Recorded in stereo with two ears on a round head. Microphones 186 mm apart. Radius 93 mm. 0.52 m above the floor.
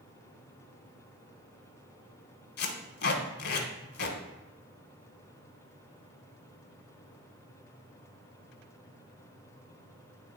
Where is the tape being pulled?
50° left (ahead or behind), 1.2 m.